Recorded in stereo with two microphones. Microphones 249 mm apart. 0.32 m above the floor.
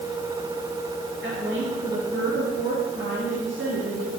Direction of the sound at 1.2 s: 50° right (ahead or behind).